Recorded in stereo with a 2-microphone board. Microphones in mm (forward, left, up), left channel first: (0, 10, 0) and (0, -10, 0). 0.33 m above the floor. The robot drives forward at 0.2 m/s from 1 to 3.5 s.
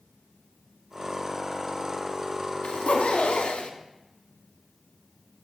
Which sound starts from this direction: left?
A zipper, at 2.6 s.